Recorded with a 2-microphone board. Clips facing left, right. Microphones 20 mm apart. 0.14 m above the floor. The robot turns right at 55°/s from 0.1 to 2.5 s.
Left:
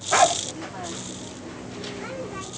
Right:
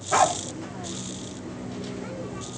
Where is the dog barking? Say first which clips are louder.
Left 2 dB; 20° left (ahead or behind), 0.6 m; by 0.3 s 35° left (ahead or behind), 0.6 m.